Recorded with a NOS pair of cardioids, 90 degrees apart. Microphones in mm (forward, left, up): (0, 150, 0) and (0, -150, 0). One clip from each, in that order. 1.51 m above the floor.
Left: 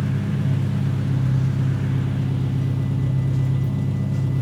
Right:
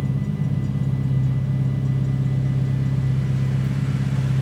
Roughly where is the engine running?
Ahead left.